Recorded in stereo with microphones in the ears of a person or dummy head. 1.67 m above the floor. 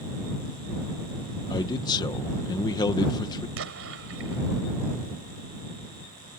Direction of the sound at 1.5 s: 20° left (ahead or behind).